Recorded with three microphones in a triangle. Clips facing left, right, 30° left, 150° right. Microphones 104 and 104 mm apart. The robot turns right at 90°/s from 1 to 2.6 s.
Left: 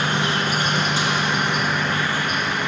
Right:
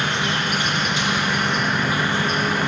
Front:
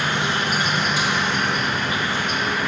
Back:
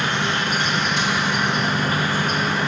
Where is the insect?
115° left, 0.9 m; by 2.7 s 105° right, 0.9 m.